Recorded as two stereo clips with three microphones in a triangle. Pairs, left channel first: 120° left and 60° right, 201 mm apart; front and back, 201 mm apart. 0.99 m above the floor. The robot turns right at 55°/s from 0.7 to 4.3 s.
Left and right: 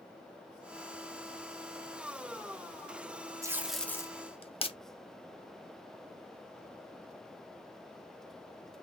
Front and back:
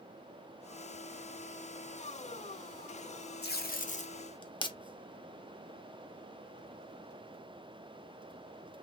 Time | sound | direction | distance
3.4 | tape being pulled | 10° left | 0.7 m